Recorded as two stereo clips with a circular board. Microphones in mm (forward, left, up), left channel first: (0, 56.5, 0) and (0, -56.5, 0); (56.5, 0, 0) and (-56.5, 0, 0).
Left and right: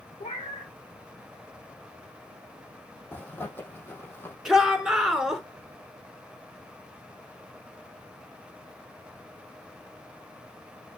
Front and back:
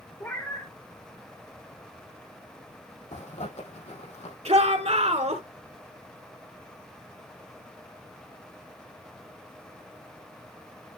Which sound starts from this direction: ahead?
A zipper, at 3.1 s.